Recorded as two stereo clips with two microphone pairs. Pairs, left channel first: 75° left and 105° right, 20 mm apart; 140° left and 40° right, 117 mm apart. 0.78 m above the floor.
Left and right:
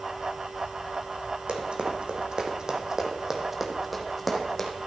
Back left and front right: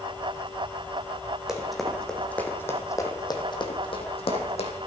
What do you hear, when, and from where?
1.5 s running footsteps: 125° right, 1.8 m; by 4.7 s 155° left, 1.8 m